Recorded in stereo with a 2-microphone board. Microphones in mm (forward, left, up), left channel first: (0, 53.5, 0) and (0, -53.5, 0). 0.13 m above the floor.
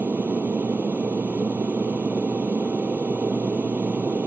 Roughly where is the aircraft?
Centre.